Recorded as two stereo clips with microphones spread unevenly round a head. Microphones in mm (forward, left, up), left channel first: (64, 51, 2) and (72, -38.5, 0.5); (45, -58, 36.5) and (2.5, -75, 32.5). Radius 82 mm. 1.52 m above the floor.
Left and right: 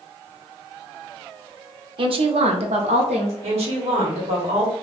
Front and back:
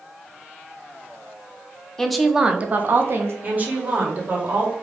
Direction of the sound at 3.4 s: 100° right.